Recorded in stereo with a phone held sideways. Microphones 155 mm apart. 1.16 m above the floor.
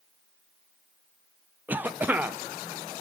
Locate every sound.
1.7 s a cough: 10° right (ahead or behind), 0.6 m